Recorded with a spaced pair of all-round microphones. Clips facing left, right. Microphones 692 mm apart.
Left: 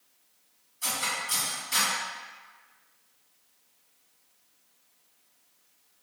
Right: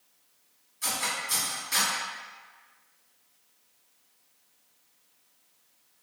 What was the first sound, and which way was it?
Cutlery clinking, 5° left (ahead or behind).